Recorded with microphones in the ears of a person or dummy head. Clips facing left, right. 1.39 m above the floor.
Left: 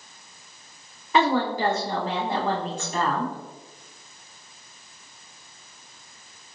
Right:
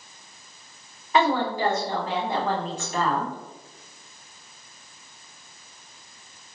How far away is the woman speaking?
About 1.5 m.